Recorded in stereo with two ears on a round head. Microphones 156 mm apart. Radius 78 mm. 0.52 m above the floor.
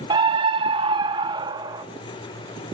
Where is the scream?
25° right (ahead or behind), 0.8 m; by 1.9 s 20° right (ahead or behind), 1.8 m.